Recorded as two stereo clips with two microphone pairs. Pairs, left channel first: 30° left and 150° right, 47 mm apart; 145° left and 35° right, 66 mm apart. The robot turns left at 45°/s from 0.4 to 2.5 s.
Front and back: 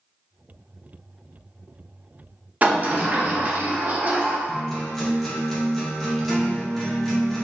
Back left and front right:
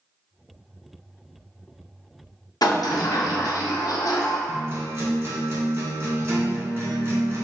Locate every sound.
2.6 s a sliding door: 150° left, 0.5 m
4.5 s a guitar: 55° right, 0.8 m